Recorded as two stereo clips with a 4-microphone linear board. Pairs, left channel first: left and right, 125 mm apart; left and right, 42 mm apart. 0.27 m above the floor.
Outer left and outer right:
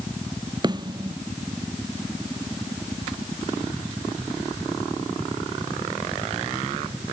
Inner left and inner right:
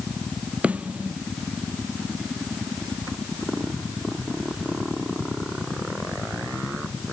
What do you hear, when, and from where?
0.6 s a snare drum: 35° right (ahead or behind)